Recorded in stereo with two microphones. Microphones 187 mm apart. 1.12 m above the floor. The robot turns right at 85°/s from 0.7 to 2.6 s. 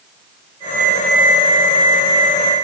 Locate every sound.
Only background noise.